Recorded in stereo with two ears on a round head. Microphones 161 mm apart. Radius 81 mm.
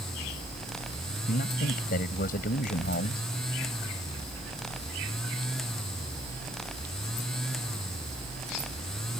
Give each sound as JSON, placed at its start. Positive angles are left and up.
{"t": 1.3, "sound": "a man speaking", "side_deg": 55}